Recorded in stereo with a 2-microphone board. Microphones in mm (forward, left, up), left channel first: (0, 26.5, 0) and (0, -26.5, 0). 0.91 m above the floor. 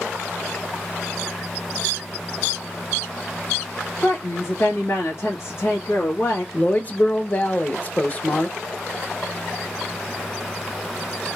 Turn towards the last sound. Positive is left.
turn(degrees=30)  # may be behind; listen again after turning